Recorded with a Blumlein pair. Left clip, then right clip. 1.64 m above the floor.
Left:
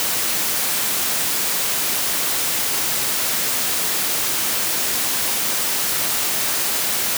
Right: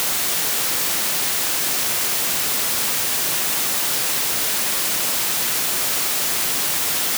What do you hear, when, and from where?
Only background noise.